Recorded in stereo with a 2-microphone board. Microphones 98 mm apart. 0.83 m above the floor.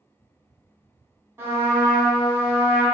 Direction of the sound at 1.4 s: 25° right (ahead or behind).